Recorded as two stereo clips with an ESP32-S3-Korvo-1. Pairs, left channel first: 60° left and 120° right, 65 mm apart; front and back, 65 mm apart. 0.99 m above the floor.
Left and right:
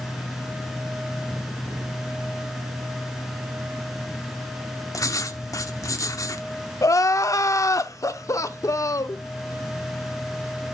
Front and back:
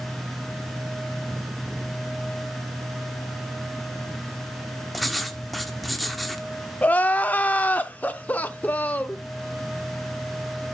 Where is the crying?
60° left, 0.8 m.